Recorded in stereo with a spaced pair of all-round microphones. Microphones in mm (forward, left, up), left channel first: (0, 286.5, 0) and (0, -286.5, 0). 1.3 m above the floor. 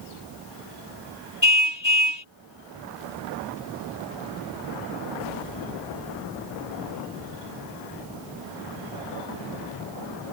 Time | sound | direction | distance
1.4 | a car horn | 30° right (ahead or behind) | ?